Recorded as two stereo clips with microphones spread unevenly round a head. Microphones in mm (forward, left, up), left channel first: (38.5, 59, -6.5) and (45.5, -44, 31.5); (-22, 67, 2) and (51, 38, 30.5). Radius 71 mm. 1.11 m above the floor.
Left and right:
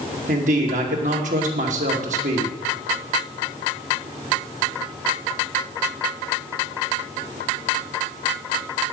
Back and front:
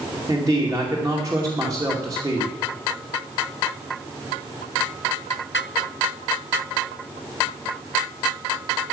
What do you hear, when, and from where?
0.3 s a man speaking: 90° right, 2.5 m